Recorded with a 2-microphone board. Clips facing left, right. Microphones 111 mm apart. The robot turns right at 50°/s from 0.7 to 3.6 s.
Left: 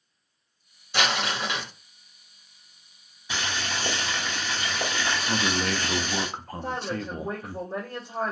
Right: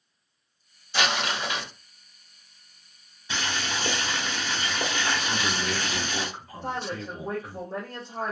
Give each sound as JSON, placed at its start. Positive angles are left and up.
{"t": 0.9, "sound": "crumpling", "azimuth_deg": 60, "distance_m": 1.7}
{"t": 3.3, "sound": "boiling", "side_deg": 10, "distance_m": 1.3}
{"t": 5.3, "sound": "a man speaking", "side_deg": 50, "distance_m": 0.5}
{"t": 6.6, "sound": "a woman speaking", "side_deg": 15, "distance_m": 1.9}